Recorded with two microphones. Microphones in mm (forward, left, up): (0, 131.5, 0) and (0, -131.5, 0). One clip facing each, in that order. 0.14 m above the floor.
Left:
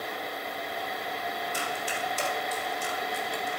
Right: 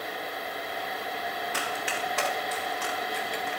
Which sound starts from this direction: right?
Running footsteps, at 1.5 s.